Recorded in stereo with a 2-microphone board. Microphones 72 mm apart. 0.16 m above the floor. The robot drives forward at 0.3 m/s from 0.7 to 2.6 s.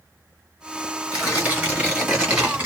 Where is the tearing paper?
20° right (ahead or behind), 1.7 m.